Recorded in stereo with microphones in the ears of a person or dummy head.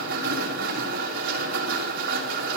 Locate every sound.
0.0 s a machine running: 65° right (ahead or behind), 3 m